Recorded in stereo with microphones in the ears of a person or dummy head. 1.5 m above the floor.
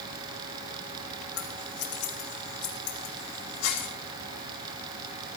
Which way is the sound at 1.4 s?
85° left.